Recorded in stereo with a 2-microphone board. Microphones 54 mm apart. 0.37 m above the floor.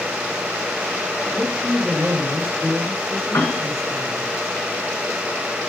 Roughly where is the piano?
Left.